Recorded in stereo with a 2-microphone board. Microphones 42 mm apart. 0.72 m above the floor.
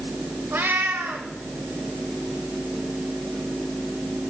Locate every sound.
0.5 s a cat meowing: 60° right (ahead or behind), 1.4 m